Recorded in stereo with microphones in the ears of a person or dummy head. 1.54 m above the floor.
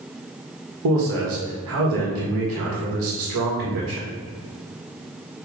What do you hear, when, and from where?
0.8 s a man speaking: 75° right (ahead or behind), 1.5 m